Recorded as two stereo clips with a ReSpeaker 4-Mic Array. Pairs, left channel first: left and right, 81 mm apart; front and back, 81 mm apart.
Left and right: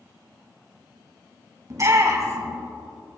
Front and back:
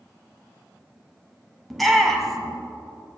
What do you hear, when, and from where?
1.7 s a shout: 90° right, 1.7 m